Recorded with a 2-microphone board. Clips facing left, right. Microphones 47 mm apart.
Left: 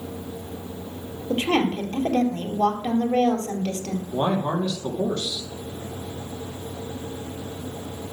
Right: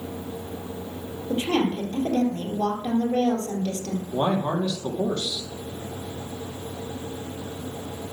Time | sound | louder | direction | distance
1.3 | a woman speaking | left 2 dB | 60° left (ahead or behind) | 3 m
4.1 | a man speaking | even | 20° right (ahead or behind) | 4.5 m